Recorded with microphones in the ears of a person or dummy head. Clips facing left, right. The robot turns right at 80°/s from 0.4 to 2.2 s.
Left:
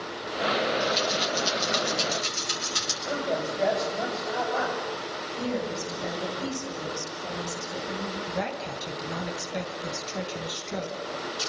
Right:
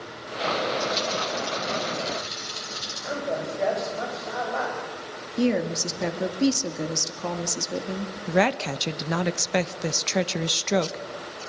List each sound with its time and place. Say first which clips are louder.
0.8 s a rattle: even; 5° right (ahead or behind), 8.5 m; by 2.9 s 75° left (ahead or behind), 8.5 m
3.0 s a man speaking: even; centre (ahead or behind), 7.5 m
5.4 s a woman speaking: right 7 dB; 85° right, 2 m
8.3 s a woman speaking: right 13 dB; 70° right (ahead or behind), 1.2 m